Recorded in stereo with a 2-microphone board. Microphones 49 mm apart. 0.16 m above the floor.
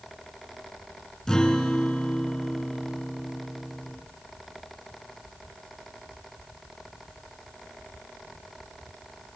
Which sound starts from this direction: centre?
A guitar, at 1.3 s.